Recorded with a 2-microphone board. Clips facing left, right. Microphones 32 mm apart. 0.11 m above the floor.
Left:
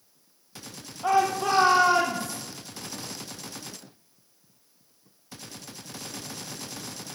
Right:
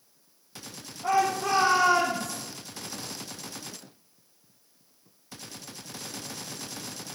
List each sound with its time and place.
1.0 s a shout: 60° left (ahead or behind), 4.5 m; by 2.4 s 65° left (ahead or behind), 5.5 m